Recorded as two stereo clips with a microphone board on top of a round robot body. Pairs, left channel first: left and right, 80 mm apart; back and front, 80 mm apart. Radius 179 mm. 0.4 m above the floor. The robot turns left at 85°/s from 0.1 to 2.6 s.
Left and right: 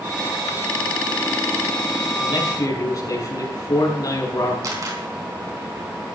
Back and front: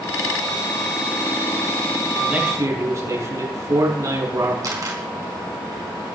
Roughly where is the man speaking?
Left.